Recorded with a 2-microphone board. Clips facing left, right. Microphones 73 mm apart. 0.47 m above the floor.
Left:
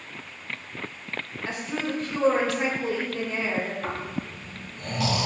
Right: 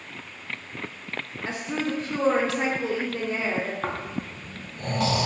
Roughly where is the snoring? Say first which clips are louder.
Right 1 dB; right.